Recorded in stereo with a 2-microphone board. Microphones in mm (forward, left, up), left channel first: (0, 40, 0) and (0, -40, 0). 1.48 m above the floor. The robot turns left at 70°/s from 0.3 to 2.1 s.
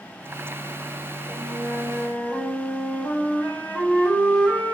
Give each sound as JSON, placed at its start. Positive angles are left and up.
{"t": 1.3, "sound": "a flute", "azimuth_deg": -150, "distance_m": 0.8}